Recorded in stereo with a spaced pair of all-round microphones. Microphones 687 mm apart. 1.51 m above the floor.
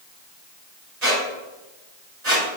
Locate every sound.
1.0 s a squeak: 65° right (ahead or behind), 3 m